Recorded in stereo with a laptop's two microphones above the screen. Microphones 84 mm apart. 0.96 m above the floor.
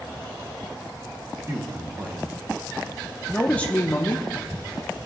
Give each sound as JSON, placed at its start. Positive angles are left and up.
{"t": 1.5, "sound": "a man speaking", "side_deg": -40, "distance_m": 1.2}